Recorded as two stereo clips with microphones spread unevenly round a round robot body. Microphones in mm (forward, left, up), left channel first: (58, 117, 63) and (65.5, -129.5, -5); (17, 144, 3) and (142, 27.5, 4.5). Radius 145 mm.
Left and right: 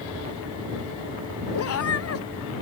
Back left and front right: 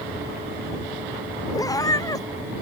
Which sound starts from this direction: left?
A cat meowing, at 1.5 s.